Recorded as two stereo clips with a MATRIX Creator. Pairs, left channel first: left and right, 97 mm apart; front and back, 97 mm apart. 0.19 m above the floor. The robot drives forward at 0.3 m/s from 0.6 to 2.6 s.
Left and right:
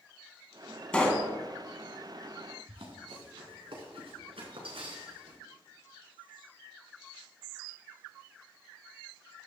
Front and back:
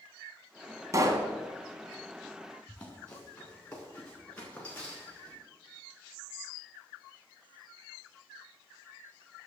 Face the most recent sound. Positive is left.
turn(degrees=-75)